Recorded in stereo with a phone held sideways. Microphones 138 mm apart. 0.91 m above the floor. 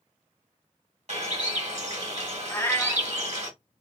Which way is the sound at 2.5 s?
15° left (ahead or behind).